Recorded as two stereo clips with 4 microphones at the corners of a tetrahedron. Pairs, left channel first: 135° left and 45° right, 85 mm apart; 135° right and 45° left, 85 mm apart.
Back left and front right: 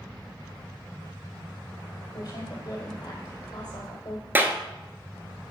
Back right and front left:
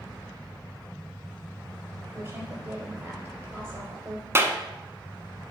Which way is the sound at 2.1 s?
105° left.